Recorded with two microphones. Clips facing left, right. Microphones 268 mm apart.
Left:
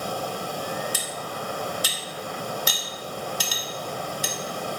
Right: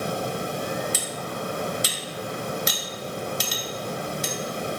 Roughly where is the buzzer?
I don't hear a buzzer.